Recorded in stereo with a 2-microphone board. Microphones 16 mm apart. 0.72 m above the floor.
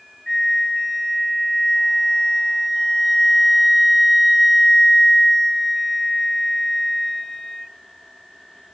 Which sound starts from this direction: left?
A flute, at 0.3 s.